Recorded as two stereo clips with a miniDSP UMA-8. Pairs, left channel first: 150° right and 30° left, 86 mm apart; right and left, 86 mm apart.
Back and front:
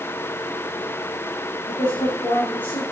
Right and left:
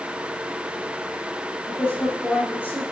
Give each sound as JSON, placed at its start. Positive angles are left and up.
{"t": 1.7, "sound": "a woman speaking", "azimuth_deg": -155, "distance_m": 5.0}